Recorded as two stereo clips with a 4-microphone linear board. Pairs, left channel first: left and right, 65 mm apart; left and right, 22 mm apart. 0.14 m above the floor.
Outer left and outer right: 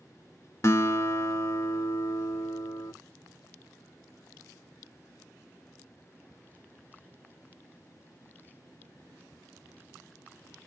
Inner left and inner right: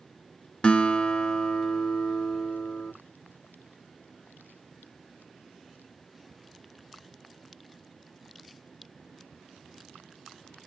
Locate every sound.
0.6 s a guitar: 45° left (ahead or behind), 0.5 m